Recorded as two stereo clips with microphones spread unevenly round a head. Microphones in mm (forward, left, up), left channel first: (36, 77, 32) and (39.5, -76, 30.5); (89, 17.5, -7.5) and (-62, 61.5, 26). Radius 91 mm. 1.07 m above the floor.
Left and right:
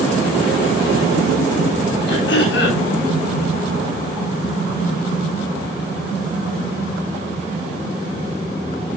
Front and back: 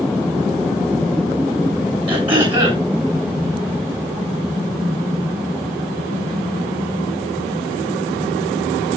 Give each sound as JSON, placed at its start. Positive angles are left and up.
{"t": 2.1, "sound": "throat clearing", "azimuth_deg": 105, "distance_m": 8.0}